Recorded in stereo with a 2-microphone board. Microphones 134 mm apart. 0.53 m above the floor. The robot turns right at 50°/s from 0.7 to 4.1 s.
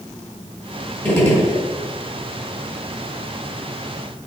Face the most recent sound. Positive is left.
turn(degrees=165)